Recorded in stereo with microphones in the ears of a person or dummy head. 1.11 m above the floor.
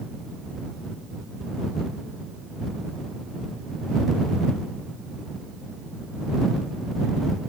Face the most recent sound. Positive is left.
No sound to turn to.